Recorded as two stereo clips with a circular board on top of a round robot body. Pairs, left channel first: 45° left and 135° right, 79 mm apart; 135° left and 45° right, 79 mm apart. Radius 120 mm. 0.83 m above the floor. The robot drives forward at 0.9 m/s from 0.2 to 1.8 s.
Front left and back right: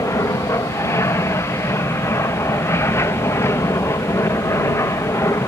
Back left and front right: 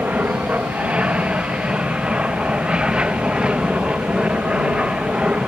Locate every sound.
0.0 s an aircraft: 20° left; by 5.5 s 25° left